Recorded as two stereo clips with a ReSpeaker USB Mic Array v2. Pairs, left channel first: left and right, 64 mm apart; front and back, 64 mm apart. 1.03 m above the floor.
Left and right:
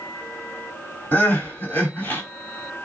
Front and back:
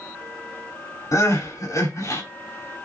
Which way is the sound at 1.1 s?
30° left.